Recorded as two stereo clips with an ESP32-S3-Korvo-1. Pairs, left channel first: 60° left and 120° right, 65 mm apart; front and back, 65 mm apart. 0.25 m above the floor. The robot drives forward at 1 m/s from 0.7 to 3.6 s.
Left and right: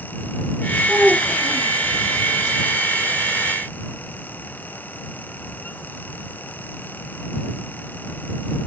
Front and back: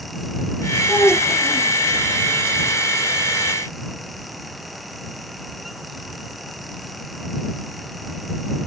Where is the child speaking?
55° right, 6 m; by 1.8 s 60° right, 5.5 m.